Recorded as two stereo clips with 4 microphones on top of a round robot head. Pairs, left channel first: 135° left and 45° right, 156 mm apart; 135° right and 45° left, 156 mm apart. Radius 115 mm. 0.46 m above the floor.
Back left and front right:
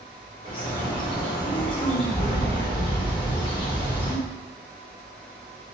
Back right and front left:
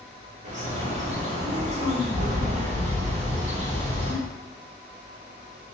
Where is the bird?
80° left, 0.9 m.